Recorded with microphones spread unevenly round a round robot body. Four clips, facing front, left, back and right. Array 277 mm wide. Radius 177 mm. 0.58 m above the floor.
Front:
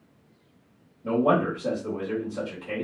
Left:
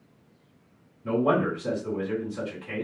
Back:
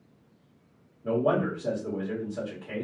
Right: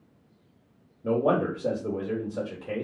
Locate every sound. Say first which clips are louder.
1.0 s a man speaking: even, front 3 dB; 75° right, 1.4 m